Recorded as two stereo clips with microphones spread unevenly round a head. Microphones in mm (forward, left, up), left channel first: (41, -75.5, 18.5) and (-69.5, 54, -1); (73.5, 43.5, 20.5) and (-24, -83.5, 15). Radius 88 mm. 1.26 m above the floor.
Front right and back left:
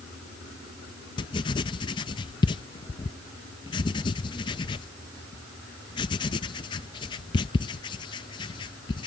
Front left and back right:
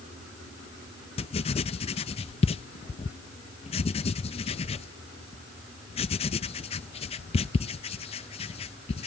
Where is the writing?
5° left.